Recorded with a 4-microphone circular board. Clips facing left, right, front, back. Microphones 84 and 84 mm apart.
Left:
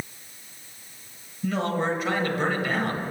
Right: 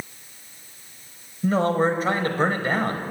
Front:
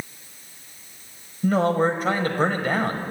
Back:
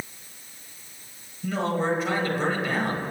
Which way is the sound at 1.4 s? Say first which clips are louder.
Right 5 dB, front 6 dB; 40° right.